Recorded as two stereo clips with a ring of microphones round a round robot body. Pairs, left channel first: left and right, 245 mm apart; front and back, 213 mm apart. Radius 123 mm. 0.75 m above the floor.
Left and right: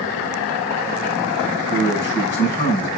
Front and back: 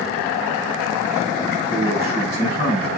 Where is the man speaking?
140° left, 5.5 m.